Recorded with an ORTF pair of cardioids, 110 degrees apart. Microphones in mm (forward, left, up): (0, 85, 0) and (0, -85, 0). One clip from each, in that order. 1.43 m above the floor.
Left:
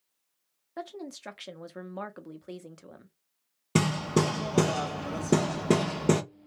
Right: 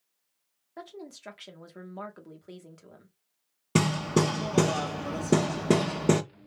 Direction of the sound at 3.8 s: 5° right.